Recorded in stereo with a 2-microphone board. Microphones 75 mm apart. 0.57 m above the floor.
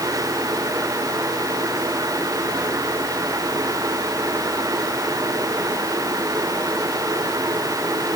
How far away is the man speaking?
I don't hear a man speaking.